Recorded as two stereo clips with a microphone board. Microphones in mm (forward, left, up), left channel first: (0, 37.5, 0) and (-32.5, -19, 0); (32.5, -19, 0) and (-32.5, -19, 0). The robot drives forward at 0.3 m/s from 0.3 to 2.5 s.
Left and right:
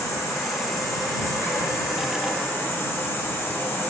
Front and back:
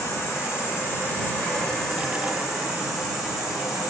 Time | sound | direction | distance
0.0 | an insect | 40° left | 0.8 m